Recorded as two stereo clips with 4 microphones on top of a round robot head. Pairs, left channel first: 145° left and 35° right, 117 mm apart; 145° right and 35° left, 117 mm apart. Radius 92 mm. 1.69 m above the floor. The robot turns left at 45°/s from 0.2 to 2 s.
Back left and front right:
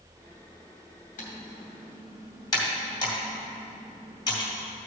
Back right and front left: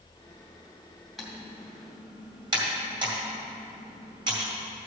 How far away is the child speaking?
I don't hear a child speaking.